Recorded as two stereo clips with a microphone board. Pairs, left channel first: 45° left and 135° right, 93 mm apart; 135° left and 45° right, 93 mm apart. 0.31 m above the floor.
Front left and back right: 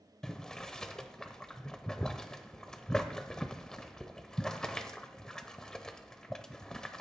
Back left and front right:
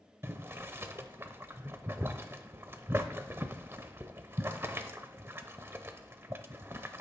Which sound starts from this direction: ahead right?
Boiling, at 0.2 s.